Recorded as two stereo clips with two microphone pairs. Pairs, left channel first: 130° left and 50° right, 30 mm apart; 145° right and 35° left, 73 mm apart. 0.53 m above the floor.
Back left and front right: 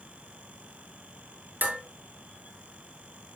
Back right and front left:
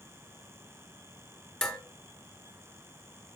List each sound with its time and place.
1.6 s dishes clattering: 65° right, 3 m